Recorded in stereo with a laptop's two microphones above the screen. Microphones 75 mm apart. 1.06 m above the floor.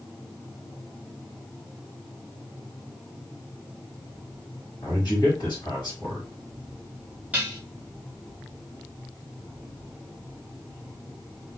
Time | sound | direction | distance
4.8 | a man speaking | 70° left (ahead or behind) | 1.5 m
7.3 | dishes clattering | 20° right (ahead or behind) | 0.7 m